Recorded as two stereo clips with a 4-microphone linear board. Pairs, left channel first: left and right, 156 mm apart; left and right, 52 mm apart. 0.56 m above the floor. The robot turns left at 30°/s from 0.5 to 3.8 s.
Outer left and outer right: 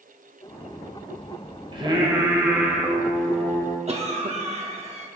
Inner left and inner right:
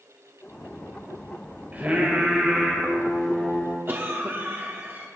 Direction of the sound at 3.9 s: 40° right (ahead or behind).